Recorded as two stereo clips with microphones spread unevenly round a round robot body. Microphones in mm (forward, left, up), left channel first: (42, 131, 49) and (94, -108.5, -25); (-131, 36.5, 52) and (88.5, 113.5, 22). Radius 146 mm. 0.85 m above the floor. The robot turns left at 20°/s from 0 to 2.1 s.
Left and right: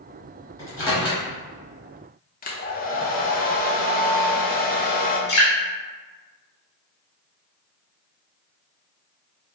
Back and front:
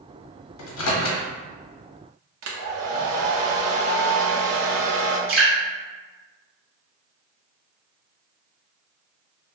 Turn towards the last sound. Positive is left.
turn(degrees=55)